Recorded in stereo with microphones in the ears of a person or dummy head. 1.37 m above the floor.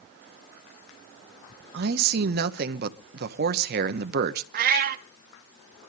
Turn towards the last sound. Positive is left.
turn(degrees=-60)  # may be behind; listen again after turning